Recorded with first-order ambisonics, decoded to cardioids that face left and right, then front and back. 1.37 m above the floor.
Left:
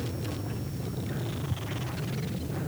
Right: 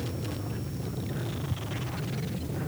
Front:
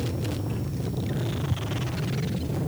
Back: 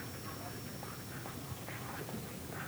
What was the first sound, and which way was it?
Only background noise.